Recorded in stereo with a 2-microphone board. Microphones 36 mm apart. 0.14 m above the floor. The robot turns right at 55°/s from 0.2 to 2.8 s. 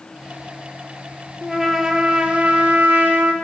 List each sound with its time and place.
1.4 s a trumpet: 170° left, 1.2 m; by 3.3 s 115° right, 1.2 m